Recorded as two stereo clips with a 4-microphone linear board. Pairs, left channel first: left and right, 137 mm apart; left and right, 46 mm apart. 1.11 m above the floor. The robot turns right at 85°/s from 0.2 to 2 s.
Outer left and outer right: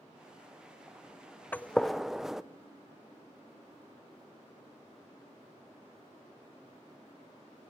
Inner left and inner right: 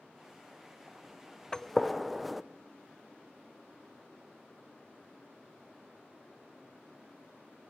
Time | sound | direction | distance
1.5 | a gunshot | 15° left (ahead or behind) | 0.7 m